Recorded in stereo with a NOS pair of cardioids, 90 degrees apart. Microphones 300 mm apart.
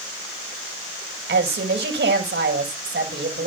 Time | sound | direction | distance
1.3 | a woman speaking | 35° right | 6.5 m